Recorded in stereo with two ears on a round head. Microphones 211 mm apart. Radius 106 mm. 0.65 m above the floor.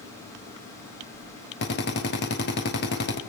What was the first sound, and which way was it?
A drill, 45° left (ahead or behind).